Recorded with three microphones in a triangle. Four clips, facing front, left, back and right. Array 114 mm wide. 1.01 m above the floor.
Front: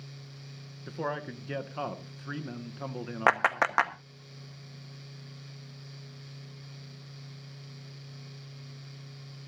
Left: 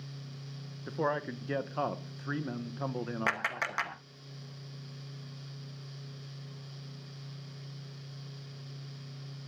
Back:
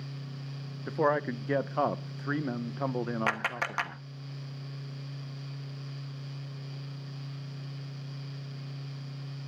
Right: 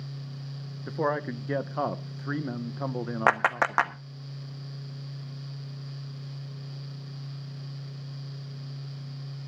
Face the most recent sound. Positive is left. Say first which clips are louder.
# right 15 dB, front 7 dB
turn(degrees=-60)